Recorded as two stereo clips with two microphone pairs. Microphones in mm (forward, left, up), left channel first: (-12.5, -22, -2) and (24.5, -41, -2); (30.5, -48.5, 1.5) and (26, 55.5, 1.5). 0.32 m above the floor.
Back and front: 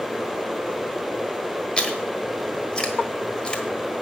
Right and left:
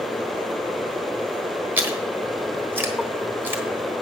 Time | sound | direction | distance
1.8 | chewing | 115° left | 1.3 m